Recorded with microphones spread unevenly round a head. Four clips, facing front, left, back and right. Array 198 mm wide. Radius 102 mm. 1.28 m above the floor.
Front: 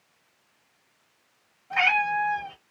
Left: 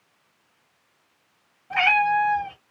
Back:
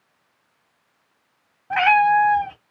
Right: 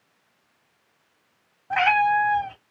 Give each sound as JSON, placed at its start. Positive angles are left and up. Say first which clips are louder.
{"t": 1.7, "sound": "a cat meowing", "louder": "right 1 dB, back 9 dB", "azimuth_deg": -145, "distance_m": 1.0}